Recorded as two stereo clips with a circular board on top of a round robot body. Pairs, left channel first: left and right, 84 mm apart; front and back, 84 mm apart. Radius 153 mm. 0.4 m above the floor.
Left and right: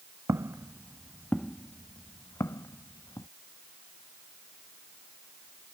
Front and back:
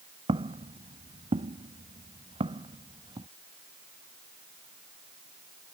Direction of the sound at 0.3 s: 150° right.